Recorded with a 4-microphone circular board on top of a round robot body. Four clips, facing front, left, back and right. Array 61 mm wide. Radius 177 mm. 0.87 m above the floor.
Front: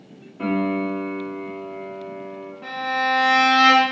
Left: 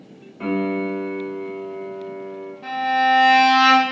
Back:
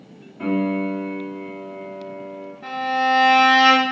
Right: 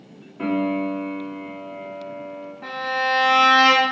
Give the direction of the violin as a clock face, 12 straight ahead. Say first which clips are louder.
Left 5 dB, back 2 dB; 2 o'clock.